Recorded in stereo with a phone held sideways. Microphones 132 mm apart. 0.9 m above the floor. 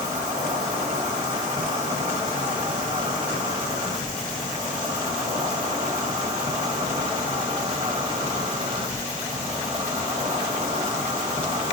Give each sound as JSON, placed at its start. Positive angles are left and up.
{"t": 0.0, "sound": "an insect", "side_deg": -35, "distance_m": 1.9}